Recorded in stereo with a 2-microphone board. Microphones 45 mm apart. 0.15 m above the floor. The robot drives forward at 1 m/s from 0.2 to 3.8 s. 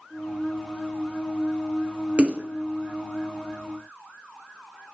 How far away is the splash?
About 0.9 m.